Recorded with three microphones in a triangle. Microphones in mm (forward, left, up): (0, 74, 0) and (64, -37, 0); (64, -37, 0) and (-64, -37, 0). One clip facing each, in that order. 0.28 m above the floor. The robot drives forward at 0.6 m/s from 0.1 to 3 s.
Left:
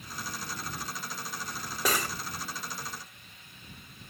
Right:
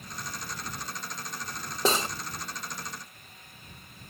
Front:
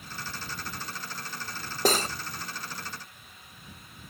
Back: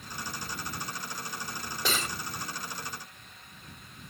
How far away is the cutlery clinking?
About 0.7 m.